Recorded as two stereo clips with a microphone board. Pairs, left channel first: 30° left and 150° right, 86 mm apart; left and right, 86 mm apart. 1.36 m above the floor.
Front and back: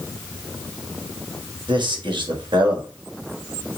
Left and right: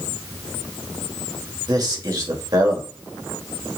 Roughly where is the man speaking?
Behind right.